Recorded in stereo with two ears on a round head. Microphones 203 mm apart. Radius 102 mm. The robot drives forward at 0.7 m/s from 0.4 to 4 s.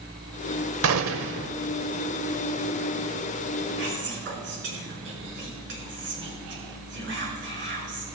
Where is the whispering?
55° right (ahead or behind), 5.5 m.